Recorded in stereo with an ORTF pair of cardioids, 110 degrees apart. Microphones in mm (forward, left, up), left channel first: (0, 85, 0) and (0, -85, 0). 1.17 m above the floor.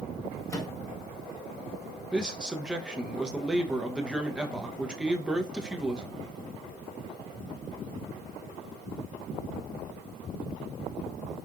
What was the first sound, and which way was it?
A microwave, 20° left.